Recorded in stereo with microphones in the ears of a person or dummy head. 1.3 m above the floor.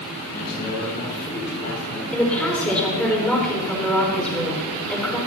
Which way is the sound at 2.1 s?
10° left (ahead or behind).